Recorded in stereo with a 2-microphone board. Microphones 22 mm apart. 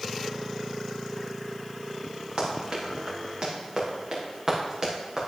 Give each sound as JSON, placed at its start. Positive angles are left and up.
{"t": 2.4, "sound": "running footsteps", "side_deg": -50, "distance_m": 4.0}